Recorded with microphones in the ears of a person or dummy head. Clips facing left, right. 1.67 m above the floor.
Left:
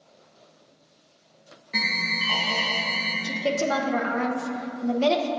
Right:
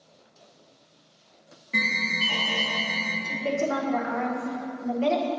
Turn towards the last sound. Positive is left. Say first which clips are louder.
# left 2 dB
turn(degrees=55)  # may be behind; listen again after turning